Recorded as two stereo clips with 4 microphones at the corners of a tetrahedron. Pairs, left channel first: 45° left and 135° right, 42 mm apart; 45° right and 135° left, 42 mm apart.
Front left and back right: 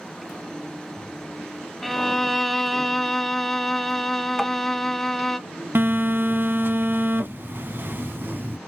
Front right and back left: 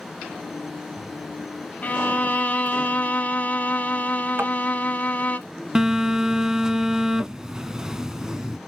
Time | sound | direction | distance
1.8 | a violin | 35° right | 0.5 m
4.4 | tapping | 125° left | 0.9 m
5.8 | a phone buzzing | 150° right | 0.5 m